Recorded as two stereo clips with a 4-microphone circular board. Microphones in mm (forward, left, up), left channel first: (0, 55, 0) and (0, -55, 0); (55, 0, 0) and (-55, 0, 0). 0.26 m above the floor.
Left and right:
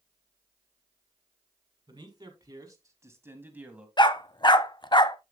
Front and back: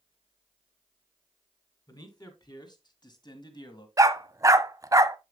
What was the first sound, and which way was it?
A man speaking, 45° right.